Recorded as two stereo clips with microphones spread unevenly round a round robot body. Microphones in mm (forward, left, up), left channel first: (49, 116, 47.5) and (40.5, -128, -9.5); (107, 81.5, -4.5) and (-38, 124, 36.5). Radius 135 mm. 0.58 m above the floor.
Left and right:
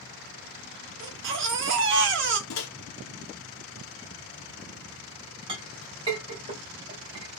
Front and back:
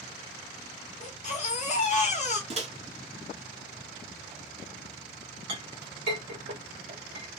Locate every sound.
1.0 s a baby crying: 60° right, 0.8 m
2.5 s a microwave: 115° left, 1.0 m
5.5 s a clink: 160° right, 1.9 m